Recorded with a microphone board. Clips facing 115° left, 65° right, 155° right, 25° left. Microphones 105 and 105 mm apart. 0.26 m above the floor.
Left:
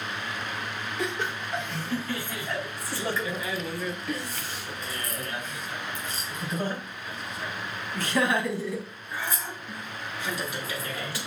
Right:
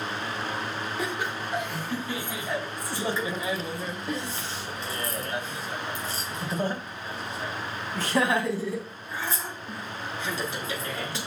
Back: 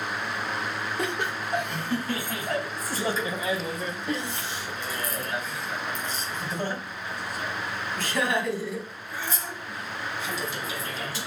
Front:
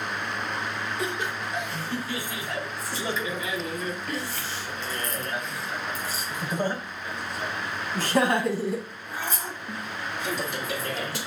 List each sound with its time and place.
1.0 s laughter: 145° right, 3 m; by 11.2 s 5° right, 3.5 m